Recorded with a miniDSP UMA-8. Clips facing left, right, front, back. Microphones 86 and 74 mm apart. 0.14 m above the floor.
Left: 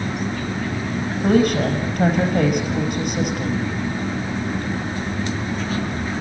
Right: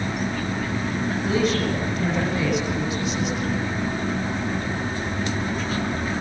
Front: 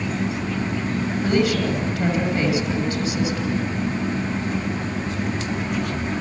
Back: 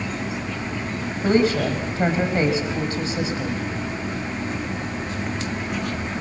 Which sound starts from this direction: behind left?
A woman speaking, at 1.2 s.